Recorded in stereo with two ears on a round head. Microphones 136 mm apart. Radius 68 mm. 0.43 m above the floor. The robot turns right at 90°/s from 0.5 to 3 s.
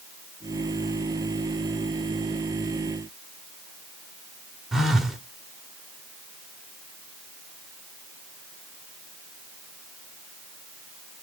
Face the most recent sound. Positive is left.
turn(degrees=-5)  # may be behind; listen again after turning